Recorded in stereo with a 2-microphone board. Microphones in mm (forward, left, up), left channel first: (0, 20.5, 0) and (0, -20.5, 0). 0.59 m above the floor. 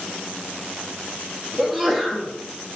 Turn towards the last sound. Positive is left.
turn(degrees=0)  # may be behind; listen again after turning